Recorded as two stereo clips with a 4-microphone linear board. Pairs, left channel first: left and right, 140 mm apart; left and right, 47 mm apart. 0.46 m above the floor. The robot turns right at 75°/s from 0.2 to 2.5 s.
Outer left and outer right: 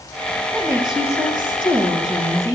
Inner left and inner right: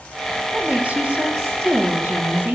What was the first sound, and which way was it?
A woman speaking, 175° right.